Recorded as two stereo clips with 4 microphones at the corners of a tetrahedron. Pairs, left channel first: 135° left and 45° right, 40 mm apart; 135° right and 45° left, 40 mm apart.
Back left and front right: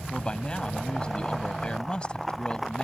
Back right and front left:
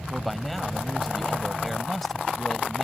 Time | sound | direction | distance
0.1 | a man speaking | 140° left | ?